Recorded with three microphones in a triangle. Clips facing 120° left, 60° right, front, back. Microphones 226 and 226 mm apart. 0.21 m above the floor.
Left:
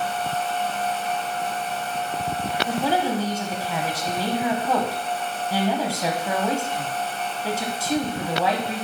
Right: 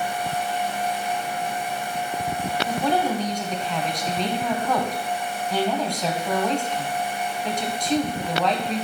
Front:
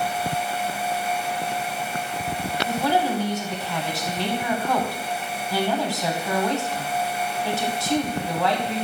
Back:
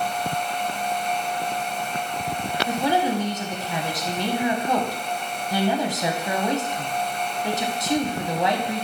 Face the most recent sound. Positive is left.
turn(degrees=-170)